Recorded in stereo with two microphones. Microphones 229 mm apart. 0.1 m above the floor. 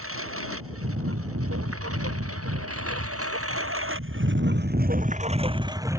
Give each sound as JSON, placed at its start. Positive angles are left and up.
{"t": 0.0, "sound": "a lawn mower", "side_deg": -70}